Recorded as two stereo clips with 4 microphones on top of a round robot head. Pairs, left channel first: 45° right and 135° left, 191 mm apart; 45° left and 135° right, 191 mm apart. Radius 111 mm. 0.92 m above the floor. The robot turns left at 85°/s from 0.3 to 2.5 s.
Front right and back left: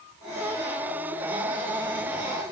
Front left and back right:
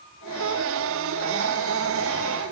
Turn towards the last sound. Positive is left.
No sound to turn to.